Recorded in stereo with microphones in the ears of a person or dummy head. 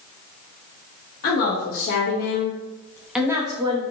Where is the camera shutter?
No camera shutter in this recording.